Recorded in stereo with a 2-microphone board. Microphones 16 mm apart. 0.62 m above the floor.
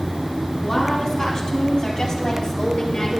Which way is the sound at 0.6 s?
50° left (ahead or behind).